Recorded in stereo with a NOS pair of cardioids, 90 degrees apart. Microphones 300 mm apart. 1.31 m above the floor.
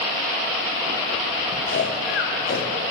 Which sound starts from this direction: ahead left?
Snoring, at 1.7 s.